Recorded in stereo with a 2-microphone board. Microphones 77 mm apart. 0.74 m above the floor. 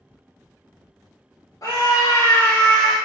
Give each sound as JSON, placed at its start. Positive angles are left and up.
{"t": 1.6, "sound": "a scream", "side_deg": 45, "distance_m": 0.7}